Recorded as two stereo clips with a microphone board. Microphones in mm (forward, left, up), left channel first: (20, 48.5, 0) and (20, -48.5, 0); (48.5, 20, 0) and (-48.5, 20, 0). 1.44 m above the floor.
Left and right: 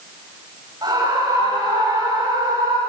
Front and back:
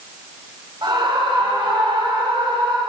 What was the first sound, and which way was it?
A scream, 140° right.